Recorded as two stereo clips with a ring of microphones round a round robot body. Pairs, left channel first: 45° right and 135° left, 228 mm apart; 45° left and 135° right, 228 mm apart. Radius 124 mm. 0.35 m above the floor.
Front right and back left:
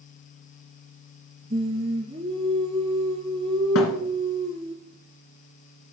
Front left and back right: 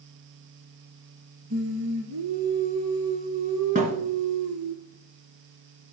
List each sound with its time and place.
1.5 s singing: 160° right, 1.3 m
3.8 s a thud: 75° right, 1.7 m